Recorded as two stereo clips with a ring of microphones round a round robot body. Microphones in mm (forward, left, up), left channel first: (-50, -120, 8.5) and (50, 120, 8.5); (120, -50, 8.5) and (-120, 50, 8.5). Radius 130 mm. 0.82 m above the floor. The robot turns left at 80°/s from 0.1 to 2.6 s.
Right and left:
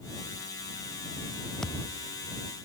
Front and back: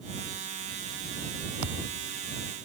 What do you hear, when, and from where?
1.6 s a thud: 160° left; by 2.1 s 125° left